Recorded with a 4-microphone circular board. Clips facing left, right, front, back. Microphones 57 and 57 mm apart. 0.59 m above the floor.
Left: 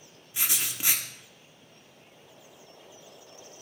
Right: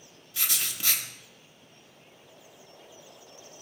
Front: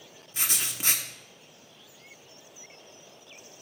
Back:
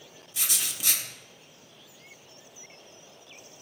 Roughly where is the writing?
Ahead left.